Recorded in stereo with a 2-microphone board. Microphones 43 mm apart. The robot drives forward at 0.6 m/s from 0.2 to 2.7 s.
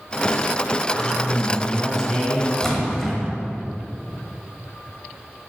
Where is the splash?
10° left (ahead or behind), 1.1 m.